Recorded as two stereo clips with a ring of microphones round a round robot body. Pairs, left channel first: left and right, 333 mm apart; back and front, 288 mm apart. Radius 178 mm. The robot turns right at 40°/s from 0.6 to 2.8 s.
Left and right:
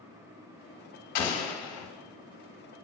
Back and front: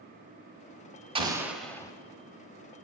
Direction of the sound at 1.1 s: 70° left.